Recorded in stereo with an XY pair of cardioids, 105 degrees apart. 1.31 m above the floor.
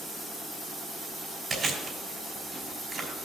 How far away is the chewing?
About 3.5 m.